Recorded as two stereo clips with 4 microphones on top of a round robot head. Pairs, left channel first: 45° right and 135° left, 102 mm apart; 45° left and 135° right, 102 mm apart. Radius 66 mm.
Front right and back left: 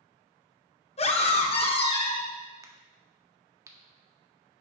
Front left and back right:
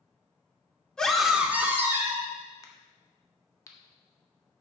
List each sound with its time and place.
1.0 s a scream: 40° right, 1.6 m; by 2.3 s 80° right, 2.5 m
2.6 s a crack: 90° left, 1.6 m